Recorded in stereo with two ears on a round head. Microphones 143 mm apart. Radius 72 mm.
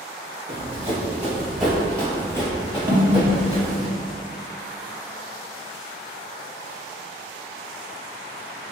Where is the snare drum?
15° right (ahead or behind), 0.7 m.